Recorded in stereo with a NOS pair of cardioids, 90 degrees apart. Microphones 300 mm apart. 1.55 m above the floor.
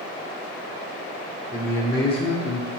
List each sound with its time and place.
1.5 s a man speaking: 5° left, 1.0 m; by 2.7 s 45° left, 0.6 m